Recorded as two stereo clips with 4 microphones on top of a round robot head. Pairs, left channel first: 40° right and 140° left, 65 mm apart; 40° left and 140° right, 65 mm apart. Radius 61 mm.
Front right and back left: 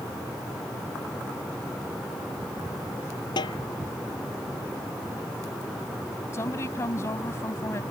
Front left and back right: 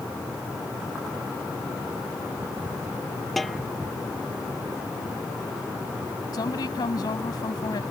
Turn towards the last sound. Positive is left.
turn(degrees=10)